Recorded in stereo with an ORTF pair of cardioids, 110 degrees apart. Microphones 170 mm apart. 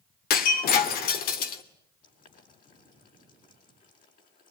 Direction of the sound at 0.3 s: 65° left.